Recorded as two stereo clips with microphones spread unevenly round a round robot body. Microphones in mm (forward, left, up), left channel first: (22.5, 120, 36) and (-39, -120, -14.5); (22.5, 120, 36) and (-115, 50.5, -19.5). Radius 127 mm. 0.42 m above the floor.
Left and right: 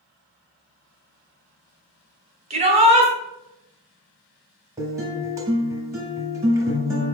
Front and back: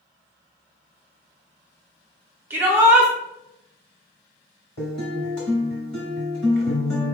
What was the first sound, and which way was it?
A shout, 125° right.